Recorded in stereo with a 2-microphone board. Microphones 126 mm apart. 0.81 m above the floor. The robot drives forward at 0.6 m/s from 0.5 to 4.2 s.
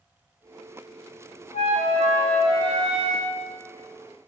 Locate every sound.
1.5 s a flute: 75° left (ahead or behind), 3.5 m; by 3.3 s 65° left (ahead or behind), 3.5 m